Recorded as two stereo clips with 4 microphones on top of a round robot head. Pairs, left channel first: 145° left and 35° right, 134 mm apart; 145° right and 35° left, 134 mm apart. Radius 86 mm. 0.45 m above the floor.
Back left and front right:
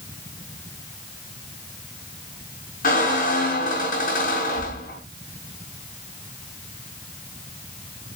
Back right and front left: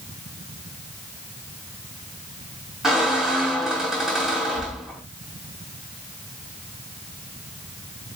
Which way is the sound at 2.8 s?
120° left.